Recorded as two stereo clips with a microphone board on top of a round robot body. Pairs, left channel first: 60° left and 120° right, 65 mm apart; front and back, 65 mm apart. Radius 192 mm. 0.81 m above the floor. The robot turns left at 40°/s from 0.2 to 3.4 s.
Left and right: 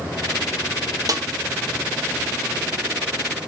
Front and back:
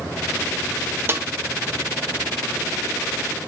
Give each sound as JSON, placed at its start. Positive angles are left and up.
{"t": 1.1, "sound": "a snare drum", "azimuth_deg": -130, "distance_m": 1.4}